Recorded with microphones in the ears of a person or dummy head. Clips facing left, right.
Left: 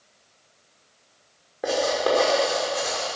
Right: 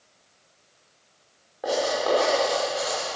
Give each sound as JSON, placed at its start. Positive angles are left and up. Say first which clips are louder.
{"t": 1.6, "sound": "writing", "louder": "left 1 dB", "side_deg": 35, "distance_m": 3.5}